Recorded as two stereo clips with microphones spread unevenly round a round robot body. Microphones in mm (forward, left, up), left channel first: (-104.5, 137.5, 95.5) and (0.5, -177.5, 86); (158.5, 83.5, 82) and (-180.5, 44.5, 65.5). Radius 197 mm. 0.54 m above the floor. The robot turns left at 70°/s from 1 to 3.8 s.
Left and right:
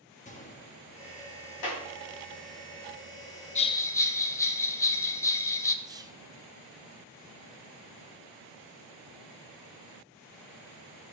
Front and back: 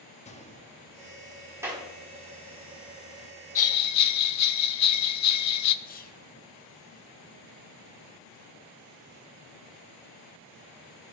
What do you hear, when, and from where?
0.2 s a gunshot: 60° left, 1.1 m; by 1.2 s 45° left, 1.1 m
1.6 s a clap: 105° left, 3.5 m; by 1.9 s 90° left, 3.5 m
3.5 s a bell: 45° left, 0.7 m; by 5.8 s 30° left, 0.7 m
5.8 s whispering: 15° right, 0.8 m